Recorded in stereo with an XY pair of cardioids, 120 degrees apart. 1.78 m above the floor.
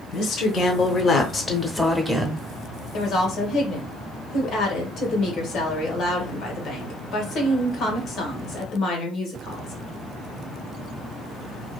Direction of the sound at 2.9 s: 65° left.